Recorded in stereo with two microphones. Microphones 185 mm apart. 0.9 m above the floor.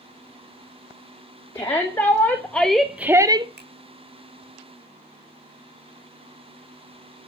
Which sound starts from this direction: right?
A finger snap, at 3.6 s.